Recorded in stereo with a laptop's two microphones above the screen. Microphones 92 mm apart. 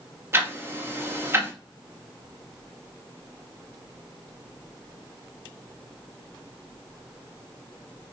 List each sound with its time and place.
0.3 s ticking: 25° right (ahead or behind), 0.6 m